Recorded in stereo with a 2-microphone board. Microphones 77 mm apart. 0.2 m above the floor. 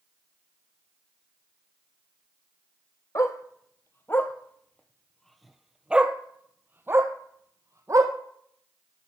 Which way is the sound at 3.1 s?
45° left (ahead or behind).